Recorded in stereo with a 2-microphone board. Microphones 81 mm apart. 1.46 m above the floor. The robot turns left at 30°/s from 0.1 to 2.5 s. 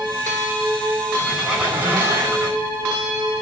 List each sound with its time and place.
1.2 s a squeak: 5° right, 6.5 m; by 2.6 s 40° right, 6.5 m